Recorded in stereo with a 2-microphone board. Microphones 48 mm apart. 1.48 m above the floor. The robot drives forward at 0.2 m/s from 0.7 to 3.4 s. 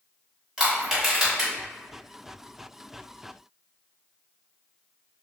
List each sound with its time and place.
0.6 s crushing: 10° right (ahead or behind), 1.2 m